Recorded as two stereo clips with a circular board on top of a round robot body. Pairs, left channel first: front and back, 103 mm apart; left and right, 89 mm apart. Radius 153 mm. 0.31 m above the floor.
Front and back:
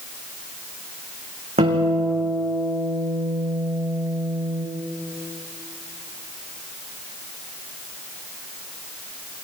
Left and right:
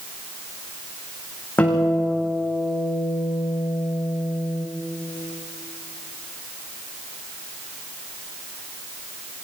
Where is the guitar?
160° left, 6 m.